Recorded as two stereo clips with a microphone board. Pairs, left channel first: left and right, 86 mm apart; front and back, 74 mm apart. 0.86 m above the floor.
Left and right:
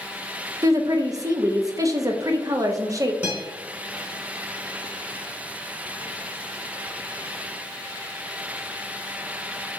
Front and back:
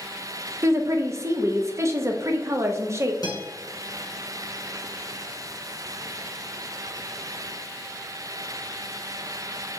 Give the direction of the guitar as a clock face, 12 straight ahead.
1 o'clock.